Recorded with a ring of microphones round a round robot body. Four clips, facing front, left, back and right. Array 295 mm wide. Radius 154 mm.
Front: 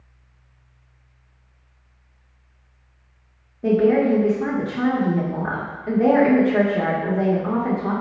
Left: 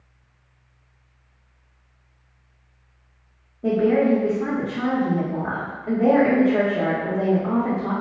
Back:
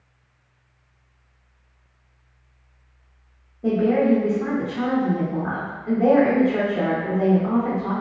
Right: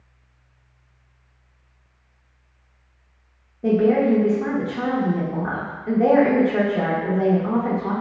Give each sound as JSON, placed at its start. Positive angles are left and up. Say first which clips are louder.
{"t": 3.6, "sound": "a woman speaking", "louder": "right 1 dB, front 2 dB", "azimuth_deg": -25, "distance_m": 1.0}